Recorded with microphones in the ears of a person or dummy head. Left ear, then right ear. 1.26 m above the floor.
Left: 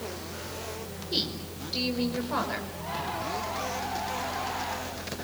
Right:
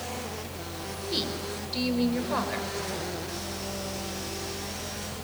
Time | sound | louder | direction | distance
1.1 | a woman speaking | left 1 dB | centre (ahead or behind) | 5 m